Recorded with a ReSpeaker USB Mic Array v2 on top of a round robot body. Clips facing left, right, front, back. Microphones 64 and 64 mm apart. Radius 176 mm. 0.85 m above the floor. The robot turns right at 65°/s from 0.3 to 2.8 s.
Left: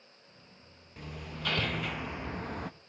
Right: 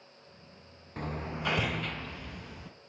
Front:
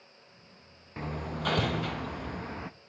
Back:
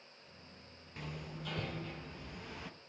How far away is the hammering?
About 1.0 m.